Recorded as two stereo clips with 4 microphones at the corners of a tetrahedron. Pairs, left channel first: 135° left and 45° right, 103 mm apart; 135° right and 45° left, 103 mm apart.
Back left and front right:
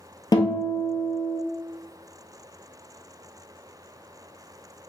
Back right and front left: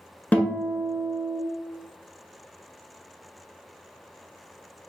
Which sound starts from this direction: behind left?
A guitar, at 0.3 s.